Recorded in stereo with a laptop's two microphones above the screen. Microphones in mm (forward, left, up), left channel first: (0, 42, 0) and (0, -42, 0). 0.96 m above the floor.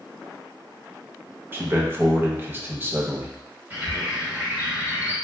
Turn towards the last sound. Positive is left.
turn(degrees=-25)  # may be behind; listen again after turning